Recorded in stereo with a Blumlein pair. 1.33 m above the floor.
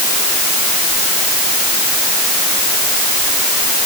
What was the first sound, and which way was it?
Only background noise.